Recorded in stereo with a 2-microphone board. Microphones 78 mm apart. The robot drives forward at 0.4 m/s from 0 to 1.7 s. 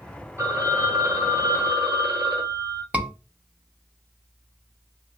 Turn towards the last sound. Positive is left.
turn(degrees=-15)  # may be behind; listen again after turning